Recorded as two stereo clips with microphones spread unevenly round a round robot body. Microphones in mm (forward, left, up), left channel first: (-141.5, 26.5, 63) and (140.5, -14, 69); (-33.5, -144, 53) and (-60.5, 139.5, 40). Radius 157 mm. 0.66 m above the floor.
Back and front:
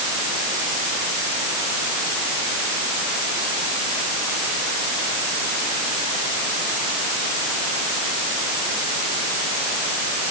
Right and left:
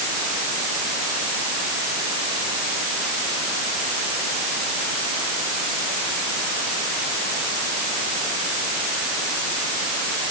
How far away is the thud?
No thud in this recording.